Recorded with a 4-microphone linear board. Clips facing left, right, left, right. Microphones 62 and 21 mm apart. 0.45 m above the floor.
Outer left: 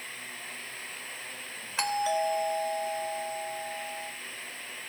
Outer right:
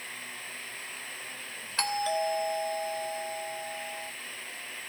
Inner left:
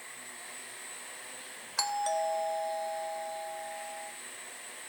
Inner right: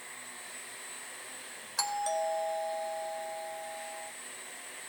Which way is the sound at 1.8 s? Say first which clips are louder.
Outer left 1 dB, inner left 1 dB; 5° left (ahead or behind).